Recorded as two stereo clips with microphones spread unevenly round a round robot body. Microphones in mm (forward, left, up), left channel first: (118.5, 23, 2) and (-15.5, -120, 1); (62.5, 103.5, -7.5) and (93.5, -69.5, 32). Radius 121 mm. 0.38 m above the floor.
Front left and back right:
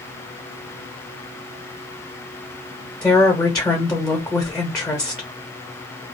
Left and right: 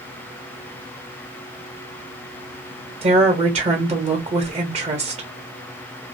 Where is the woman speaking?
35° right, 1.1 m.